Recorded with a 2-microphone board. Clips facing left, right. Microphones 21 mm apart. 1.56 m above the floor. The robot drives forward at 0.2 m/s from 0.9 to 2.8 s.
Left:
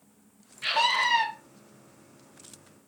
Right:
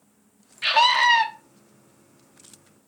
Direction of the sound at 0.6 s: 30° right (ahead or behind).